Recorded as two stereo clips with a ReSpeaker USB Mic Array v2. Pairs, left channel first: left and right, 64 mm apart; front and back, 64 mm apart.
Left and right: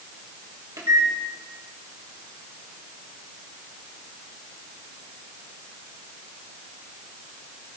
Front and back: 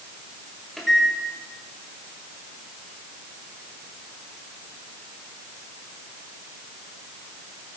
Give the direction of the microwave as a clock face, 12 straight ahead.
3 o'clock.